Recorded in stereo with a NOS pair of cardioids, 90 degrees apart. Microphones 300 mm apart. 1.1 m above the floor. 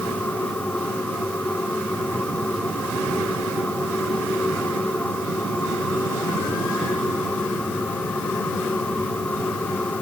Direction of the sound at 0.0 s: 5° left.